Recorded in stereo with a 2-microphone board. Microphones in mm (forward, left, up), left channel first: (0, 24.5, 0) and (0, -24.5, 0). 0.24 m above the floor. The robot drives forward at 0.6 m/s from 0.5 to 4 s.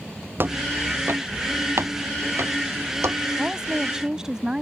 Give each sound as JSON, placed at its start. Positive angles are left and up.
{"t": 0.4, "sound": "footsteps", "side_deg": -50}
{"t": 3.4, "sound": "a woman speaking", "side_deg": -15}